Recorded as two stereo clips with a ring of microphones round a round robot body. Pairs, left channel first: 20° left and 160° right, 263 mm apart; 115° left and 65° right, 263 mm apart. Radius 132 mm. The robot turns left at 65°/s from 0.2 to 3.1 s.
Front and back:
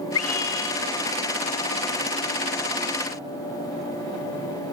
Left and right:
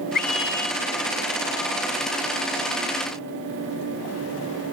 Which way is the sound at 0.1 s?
55° left.